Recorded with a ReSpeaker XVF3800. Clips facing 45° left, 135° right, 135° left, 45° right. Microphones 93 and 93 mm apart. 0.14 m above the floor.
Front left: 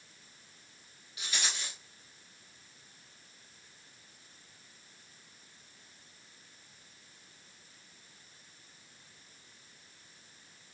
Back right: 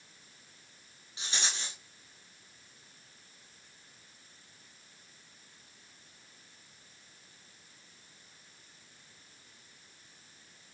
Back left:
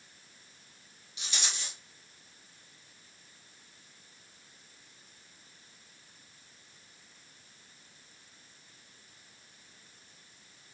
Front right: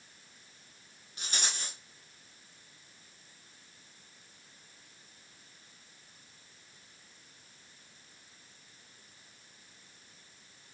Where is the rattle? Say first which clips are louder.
Even, front right 1 dB; 80° right, 1.4 m.